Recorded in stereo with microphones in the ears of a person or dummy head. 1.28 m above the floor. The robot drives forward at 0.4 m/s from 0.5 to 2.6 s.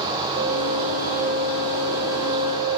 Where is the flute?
60° right (ahead or behind), 3 m; by 2.8 s 75° right (ahead or behind), 2.5 m.